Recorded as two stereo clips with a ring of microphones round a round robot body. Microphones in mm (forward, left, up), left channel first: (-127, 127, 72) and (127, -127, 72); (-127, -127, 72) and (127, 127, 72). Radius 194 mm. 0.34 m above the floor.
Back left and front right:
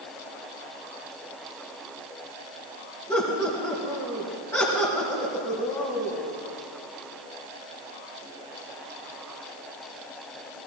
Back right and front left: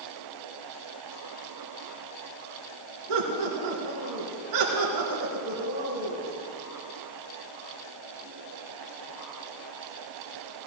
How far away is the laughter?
About 4 m.